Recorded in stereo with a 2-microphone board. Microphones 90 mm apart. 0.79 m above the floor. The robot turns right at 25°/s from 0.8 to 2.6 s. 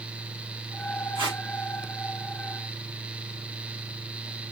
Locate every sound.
1.1 s tape being pulled: 70° right (ahead or behind), 2.5 m; by 1.4 s 60° right (ahead or behind), 2.5 m